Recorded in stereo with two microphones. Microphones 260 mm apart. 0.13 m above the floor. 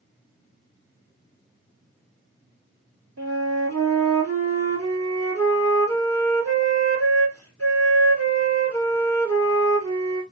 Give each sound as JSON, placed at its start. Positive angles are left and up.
{"t": 3.2, "sound": "a flute", "side_deg": -65, "distance_m": 1.5}